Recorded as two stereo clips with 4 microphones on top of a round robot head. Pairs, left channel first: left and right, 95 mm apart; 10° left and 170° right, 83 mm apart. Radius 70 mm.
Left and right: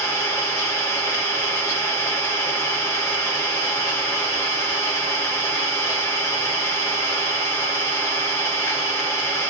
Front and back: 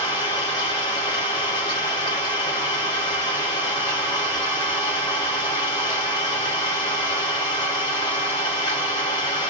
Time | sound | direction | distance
0.0 | an engine running | 30° left | 1.8 m